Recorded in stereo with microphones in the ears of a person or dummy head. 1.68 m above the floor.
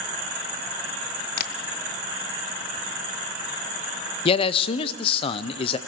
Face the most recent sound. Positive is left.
turn(degrees=30)  # may be behind; listen again after turning